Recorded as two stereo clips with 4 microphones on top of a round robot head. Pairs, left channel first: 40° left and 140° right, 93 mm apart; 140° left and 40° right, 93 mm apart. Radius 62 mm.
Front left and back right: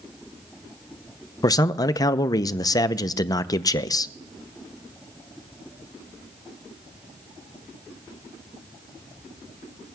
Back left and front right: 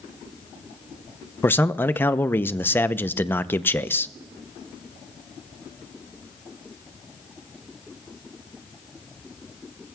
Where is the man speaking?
75° left, 0.6 m.